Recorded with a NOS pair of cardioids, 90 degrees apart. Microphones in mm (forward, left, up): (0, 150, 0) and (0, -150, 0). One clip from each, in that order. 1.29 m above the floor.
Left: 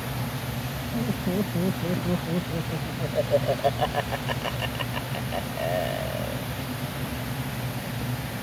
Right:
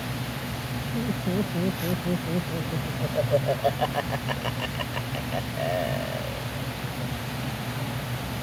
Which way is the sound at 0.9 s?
5° left.